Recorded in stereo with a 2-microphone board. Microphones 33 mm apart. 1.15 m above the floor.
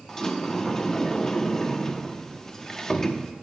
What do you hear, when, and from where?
0.1 s a sliding door: 15° left (ahead or behind), 0.7 m